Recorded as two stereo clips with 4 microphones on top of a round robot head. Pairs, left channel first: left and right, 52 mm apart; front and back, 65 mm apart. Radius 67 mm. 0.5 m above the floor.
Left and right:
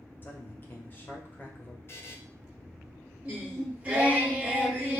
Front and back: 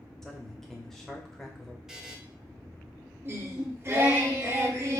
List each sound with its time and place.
0.2 s a man speaking: 80° left, 1.2 m
1.9 s a buzzer: 100° left, 0.9 m
3.2 s singing: 140° right, 1.6 m